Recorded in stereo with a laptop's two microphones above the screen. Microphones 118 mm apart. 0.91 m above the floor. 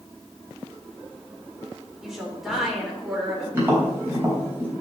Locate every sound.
2.0 s a woman speaking: 5° right (ahead or behind), 3.5 m
3.5 s tapping: 20° right (ahead or behind), 4 m